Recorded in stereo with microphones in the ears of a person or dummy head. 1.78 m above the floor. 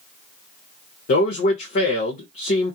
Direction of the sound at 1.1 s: 35° left (ahead or behind).